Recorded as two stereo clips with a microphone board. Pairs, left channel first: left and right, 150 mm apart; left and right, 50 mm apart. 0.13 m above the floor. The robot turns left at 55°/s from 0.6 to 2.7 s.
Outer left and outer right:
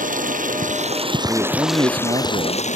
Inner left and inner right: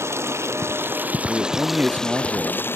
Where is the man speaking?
10° right; by 2.8 s 85° right.